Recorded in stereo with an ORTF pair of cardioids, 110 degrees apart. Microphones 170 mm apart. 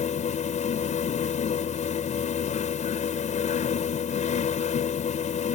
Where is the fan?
45° left.